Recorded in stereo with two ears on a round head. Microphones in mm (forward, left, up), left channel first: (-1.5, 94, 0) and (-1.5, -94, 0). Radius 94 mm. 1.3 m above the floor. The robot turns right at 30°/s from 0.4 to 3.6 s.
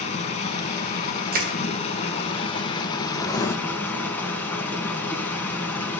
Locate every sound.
0.0 s running water: 65° left, 1.4 m; by 6.0 s 160° left, 1.4 m
1.3 s crushing: 45° right (ahead or behind), 1.3 m; by 1.5 s 40° right (ahead or behind), 1.3 m
3.2 s writing: 20° left (ahead or behind), 0.8 m; by 3.5 s 15° left (ahead or behind), 0.8 m